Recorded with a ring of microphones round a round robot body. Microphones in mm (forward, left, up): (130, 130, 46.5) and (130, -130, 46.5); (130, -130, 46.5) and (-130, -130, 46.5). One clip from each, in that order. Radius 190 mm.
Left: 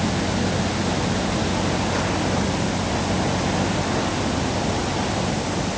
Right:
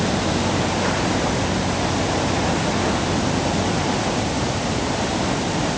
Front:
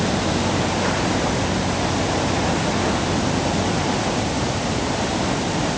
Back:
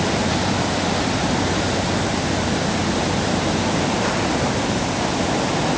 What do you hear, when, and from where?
Only background noise.